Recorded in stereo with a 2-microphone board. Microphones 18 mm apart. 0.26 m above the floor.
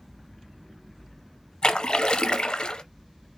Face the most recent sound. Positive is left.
turn(degrees=55)  # may be behind; listen again after turning